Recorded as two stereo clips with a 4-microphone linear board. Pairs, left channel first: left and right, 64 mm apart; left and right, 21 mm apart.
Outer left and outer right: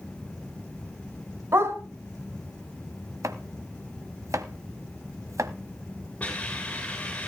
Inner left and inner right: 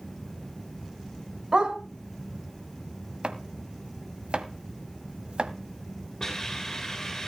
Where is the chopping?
55° right (ahead or behind), 1.1 m.